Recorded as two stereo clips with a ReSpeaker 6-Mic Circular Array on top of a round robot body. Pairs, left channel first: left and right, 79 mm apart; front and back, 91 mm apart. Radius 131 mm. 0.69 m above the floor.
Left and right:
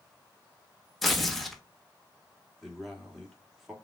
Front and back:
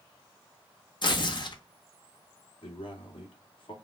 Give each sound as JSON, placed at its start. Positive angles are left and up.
{"t": 1.0, "sound": "tearing paper", "azimuth_deg": 0, "distance_m": 1.2}
{"t": 2.6, "sound": "a man speaking", "azimuth_deg": 0, "distance_m": 1.9}